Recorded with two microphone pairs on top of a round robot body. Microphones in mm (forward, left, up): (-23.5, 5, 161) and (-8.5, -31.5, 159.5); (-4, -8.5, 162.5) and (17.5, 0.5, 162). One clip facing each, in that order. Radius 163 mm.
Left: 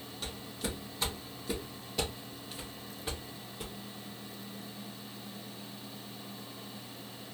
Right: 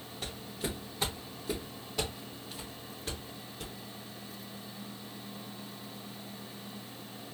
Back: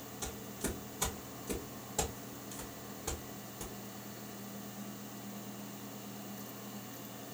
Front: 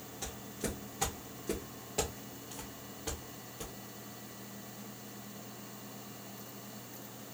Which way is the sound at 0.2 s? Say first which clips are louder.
Right 1 dB, front 1 dB; 30° right.